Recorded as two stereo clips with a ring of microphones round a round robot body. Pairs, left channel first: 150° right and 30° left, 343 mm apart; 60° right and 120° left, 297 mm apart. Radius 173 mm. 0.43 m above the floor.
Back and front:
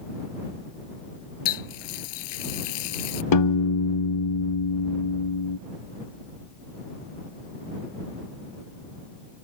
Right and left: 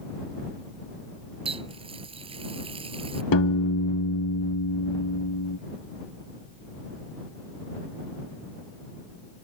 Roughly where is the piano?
Right.